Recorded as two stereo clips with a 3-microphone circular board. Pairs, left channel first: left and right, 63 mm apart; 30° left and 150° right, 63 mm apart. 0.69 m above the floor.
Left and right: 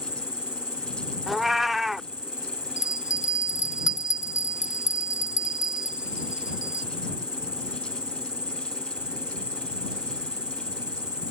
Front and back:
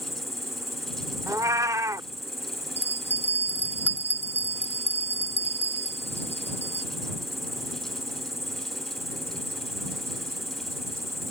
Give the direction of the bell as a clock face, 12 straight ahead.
9 o'clock.